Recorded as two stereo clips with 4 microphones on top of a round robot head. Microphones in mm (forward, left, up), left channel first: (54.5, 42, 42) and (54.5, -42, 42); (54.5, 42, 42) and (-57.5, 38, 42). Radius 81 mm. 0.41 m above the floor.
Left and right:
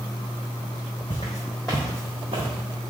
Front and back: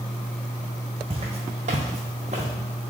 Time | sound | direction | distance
1.1 | footsteps | 150° left | 0.9 m